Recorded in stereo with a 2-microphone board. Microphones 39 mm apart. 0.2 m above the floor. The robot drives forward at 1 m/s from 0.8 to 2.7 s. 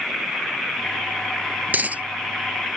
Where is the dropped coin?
55° right (ahead or behind); by 2.0 s 40° right (ahead or behind).